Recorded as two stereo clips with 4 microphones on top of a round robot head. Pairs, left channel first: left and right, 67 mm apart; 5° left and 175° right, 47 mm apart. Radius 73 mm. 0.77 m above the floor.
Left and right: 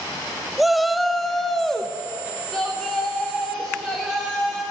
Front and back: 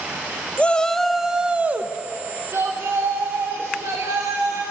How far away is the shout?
About 0.6 m.